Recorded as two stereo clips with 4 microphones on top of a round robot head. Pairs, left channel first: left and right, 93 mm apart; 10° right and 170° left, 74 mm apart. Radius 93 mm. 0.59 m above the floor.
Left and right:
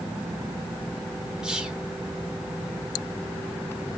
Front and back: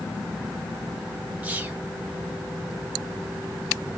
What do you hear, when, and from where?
1.4 s whispering: 160° right, 0.9 m